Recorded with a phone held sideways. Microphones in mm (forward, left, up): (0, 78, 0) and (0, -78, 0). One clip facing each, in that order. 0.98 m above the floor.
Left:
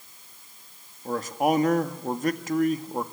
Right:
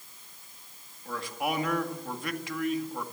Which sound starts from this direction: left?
A man speaking, at 1.1 s.